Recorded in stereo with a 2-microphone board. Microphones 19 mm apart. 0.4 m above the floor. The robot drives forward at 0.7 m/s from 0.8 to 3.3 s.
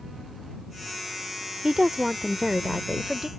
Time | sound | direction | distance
1.6 | a woman speaking | 30° right (ahead or behind) | ?